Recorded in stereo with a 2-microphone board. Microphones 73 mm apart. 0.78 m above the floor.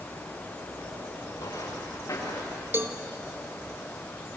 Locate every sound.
1.4 s footsteps: 55° left (ahead or behind), 6 m; by 2.6 s 45° left (ahead or behind), 6 m
2.7 s a cowbell: 30° right (ahead or behind), 0.9 m